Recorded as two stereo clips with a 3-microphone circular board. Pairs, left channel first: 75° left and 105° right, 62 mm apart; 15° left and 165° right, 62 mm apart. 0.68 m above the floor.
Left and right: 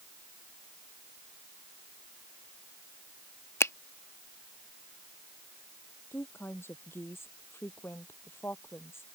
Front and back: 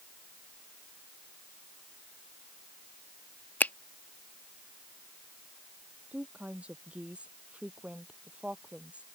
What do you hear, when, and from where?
3.6 s a finger snap: 60° left
6.1 s a woman speaking: 125° left